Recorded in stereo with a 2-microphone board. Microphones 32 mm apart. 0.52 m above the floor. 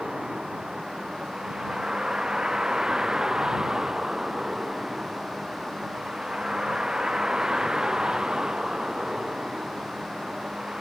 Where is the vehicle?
25° right (ahead or behind).